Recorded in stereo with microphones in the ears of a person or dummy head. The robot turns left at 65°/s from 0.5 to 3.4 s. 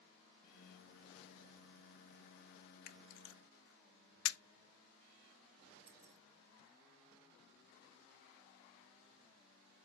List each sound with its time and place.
2.9 s a camera shutter: 50° left (ahead or behind), 0.7 m; by 4.4 s 85° left, 0.7 m
5.9 s keys jangling: 30° right (ahead or behind), 0.6 m